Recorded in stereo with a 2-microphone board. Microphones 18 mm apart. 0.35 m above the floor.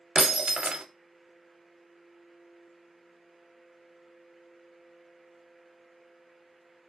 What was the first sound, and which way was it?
Breaking glass, 70° right (ahead or behind).